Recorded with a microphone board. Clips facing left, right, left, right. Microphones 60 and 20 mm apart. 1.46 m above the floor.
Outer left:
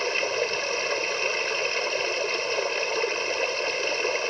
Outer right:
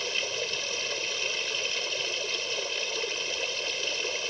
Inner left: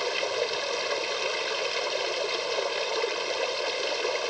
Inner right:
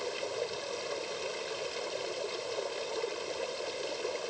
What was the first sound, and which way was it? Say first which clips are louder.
Running water: outer left 7 dB, inner left 8 dB; 45° left (ahead or behind).